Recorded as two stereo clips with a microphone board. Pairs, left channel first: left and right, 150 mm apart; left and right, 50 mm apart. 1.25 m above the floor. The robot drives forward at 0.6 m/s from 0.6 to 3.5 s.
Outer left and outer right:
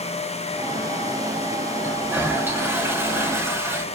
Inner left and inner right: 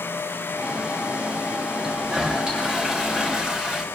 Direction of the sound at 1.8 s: 15° right (ahead or behind).